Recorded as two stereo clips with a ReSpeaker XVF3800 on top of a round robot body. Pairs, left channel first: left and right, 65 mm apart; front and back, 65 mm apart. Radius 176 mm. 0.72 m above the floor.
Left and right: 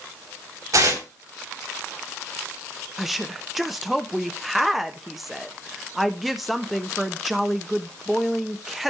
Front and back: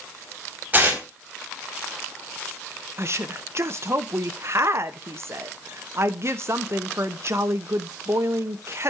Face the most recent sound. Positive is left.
turn(degrees=-175)